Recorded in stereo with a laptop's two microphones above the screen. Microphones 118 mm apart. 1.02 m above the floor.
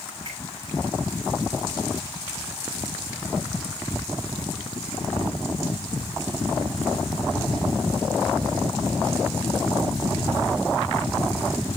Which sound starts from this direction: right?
A finger snap, at 0.2 s.